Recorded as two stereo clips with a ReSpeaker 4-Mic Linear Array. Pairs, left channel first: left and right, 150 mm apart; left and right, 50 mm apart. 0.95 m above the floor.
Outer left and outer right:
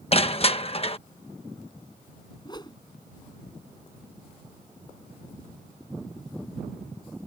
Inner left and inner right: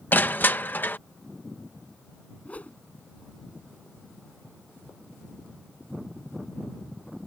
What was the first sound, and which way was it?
Crushing, 40° left (ahead or behind).